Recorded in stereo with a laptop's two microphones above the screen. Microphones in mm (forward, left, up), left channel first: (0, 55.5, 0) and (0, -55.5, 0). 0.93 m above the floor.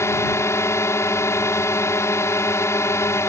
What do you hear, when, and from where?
0.0 s a drone: 25° left (ahead or behind)